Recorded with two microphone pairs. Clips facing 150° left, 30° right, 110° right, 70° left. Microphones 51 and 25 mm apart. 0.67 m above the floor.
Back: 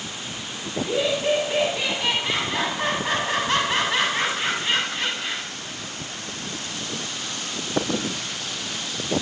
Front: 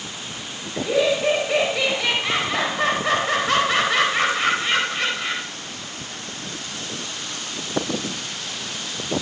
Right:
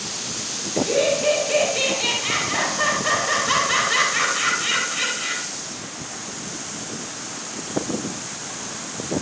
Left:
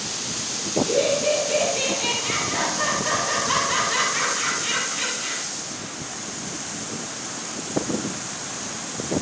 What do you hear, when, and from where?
0.8 s laughter: 45° right, 4 m